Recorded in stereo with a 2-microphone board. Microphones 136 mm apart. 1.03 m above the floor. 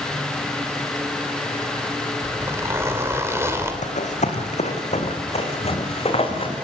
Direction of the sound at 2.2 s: 20° right (ahead or behind).